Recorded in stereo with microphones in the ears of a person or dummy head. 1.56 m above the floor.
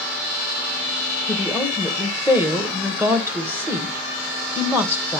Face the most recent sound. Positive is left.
turn(degrees=-10)  # may be behind; listen again after turning